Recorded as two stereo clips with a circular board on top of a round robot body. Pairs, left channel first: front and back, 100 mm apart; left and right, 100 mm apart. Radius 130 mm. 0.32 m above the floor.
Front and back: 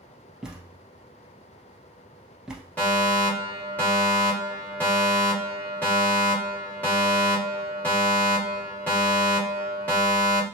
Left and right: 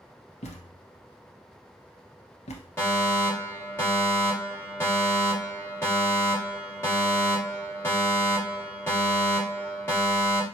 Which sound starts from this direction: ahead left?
A fire alarm, at 2.8 s.